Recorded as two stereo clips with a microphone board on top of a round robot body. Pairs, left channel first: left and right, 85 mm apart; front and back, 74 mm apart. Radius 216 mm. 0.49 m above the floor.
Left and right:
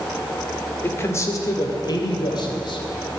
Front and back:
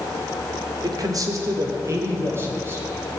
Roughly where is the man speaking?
Behind left.